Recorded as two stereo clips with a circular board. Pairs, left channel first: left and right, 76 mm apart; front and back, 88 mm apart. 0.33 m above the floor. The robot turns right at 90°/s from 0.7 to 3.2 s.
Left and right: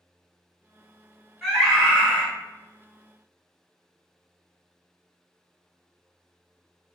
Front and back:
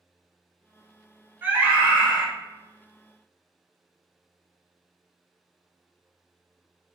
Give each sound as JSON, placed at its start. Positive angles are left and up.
{"t": 1.4, "sound": "a scream", "azimuth_deg": 175, "distance_m": 1.2}